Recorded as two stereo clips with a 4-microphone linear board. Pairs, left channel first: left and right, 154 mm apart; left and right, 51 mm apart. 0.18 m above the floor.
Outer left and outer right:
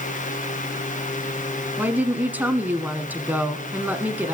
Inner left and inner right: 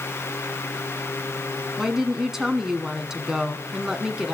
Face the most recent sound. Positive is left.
turn(degrees=-10)  # may be behind; listen again after turning